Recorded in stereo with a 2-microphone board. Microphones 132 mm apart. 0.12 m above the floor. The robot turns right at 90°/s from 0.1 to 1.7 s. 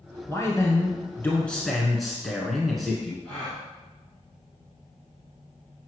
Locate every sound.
0.3 s a man speaking: 20° left (ahead or behind), 1.1 m; by 3.1 s centre (ahead or behind), 1.1 m
3.2 s a gasp: 10° left (ahead or behind), 3 m